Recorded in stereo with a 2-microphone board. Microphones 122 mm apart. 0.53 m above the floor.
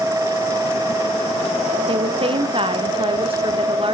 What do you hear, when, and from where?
1.9 s a woman speaking: 45° right (ahead or behind), 0.9 m